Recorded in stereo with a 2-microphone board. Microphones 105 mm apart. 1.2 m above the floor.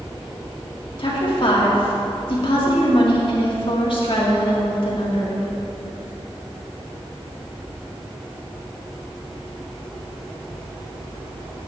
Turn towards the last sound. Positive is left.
turn(degrees=55)  # may be behind; listen again after turning